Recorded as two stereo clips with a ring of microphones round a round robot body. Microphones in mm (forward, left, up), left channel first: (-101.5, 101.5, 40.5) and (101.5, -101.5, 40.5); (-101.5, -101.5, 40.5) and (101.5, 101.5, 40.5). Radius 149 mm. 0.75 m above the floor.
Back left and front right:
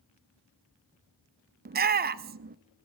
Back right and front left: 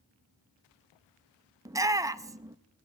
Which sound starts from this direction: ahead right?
A shout, at 1.6 s.